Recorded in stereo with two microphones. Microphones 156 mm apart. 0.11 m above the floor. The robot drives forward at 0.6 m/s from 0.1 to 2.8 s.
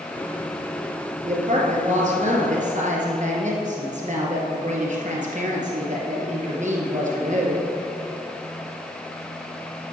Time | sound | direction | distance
1.2 | a woman speaking | 50° right (ahead or behind) | 2.5 m